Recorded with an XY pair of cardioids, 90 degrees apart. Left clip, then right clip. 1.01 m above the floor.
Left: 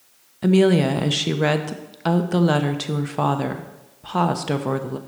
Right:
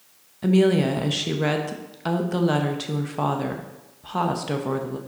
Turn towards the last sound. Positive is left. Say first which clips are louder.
# left 3 dB
turn(degrees=35)